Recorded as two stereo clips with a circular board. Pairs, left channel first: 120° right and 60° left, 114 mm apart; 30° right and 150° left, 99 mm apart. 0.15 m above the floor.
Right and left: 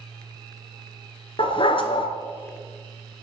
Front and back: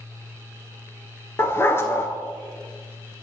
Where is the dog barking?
90° right, 0.7 m.